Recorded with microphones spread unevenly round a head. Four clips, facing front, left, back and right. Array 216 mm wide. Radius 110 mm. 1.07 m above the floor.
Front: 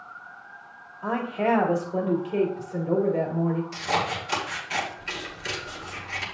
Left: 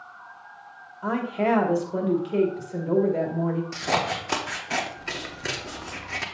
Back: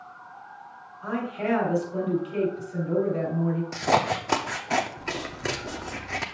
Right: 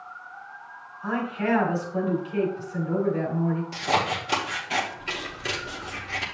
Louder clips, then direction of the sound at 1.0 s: Left 2 dB, front 3 dB; 60° left.